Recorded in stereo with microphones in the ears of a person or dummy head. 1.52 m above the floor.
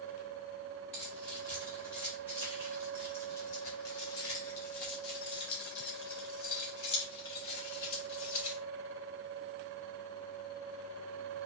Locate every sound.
0.9 s keys jangling: 5° left (ahead or behind), 1.8 m; by 8.6 s 50° left (ahead or behind), 3 m